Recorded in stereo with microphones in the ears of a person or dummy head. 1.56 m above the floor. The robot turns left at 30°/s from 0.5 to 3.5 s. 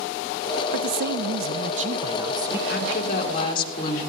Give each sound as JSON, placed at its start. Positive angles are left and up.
{"t": 0.7, "sound": "a man speaking", "azimuth_deg": -115, "distance_m": 0.7}
{"t": 2.7, "sound": "a woman speaking", "side_deg": 55, "distance_m": 3.0}